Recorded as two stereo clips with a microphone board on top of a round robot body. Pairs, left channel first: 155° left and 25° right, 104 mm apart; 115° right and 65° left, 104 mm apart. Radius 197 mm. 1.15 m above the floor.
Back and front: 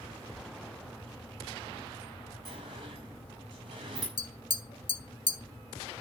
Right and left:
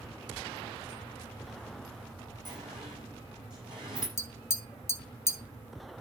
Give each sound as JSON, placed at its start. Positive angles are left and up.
{"t": 2.5, "sound": "a sliding door", "azimuth_deg": 20, "distance_m": 6.5}
{"t": 4.2, "sound": "tapping", "azimuth_deg": -175, "distance_m": 2.0}